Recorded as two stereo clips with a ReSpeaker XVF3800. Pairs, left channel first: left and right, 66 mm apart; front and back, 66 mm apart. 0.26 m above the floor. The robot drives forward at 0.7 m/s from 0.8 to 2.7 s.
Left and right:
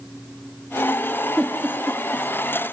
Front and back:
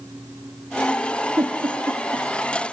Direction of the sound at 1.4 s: 175° left.